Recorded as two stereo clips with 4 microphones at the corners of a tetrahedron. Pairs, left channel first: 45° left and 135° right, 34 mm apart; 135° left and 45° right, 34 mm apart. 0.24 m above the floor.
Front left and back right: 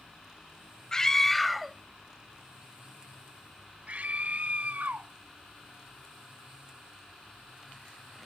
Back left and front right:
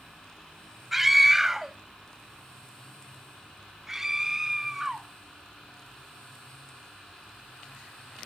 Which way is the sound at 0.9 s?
25° left.